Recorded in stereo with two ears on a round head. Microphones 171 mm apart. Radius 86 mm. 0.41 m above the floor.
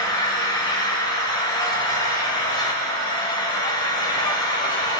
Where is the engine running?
20° left (ahead or behind), 0.8 m.